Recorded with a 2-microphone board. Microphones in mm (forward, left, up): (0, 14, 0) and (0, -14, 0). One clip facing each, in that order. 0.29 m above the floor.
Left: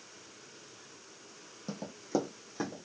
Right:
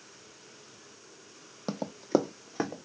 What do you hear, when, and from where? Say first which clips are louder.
1.7 s running footsteps: right 6 dB; 55° right (ahead or behind), 0.5 m; by 2.8 s 35° right (ahead or behind), 1.0 m